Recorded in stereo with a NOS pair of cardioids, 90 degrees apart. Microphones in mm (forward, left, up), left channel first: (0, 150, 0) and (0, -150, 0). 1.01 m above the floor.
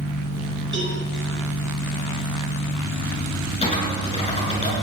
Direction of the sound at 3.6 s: 20° left.